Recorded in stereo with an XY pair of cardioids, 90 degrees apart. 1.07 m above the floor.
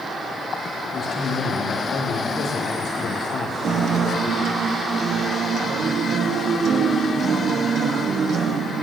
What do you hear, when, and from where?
0.8 s a man speaking: 65° left, 2.5 m
3.6 s a guitar: 60° right, 0.7 m